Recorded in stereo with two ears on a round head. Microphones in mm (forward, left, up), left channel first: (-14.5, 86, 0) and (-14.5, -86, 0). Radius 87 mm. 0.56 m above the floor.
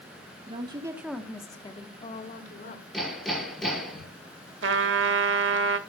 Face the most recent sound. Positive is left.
turn(degrees=-60)  # may be behind; listen again after turning